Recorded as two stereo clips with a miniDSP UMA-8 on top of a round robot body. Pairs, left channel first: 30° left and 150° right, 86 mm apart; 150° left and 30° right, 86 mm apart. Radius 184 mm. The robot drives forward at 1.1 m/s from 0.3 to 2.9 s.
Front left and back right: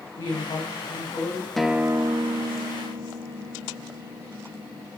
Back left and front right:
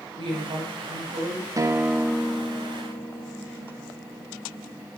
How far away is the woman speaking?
About 5 m.